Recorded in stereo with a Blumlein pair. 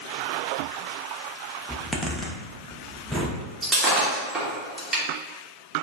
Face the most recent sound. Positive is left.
turn(degrees=-10)